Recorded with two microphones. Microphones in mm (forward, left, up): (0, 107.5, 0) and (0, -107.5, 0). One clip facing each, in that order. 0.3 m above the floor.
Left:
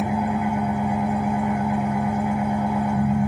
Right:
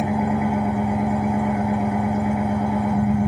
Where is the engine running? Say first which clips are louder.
Right 2 dB; 80° right, 6 m.